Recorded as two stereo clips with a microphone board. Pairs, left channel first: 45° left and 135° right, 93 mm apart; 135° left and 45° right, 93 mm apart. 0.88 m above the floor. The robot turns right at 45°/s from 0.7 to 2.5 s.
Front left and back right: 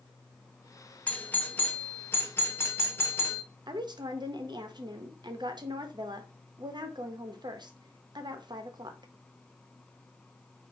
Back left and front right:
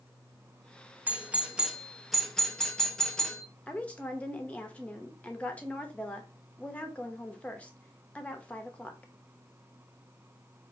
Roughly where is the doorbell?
Ahead.